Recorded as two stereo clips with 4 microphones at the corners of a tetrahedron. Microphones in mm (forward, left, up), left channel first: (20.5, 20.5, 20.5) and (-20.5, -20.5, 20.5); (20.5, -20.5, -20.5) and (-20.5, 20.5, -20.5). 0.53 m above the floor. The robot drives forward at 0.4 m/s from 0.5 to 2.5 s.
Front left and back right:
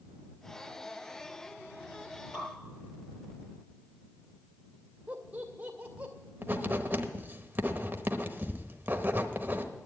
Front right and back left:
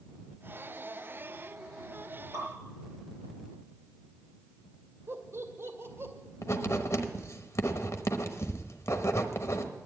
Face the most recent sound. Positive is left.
turn(degrees=-80)